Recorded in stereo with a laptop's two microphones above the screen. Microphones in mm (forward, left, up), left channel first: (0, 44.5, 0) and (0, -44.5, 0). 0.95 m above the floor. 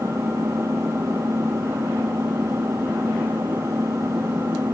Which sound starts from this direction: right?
An engine running, at 0.0 s.